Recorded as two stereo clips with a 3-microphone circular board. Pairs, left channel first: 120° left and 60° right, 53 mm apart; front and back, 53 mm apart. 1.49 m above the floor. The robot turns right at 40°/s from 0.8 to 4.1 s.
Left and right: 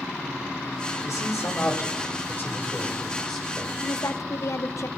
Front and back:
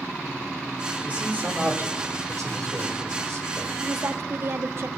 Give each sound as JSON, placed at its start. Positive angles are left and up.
{"t": 1.0, "sound": "a man speaking", "azimuth_deg": 115, "distance_m": 6.0}
{"t": 3.8, "sound": "a woman speaking", "azimuth_deg": 130, "distance_m": 1.0}